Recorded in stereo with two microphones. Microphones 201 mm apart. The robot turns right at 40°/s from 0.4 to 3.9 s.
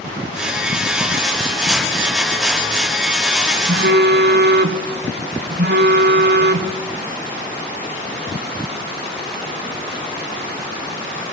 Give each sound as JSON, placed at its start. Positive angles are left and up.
{"t": 3.7, "sound": "a phone buzzing", "side_deg": -65, "distance_m": 0.8}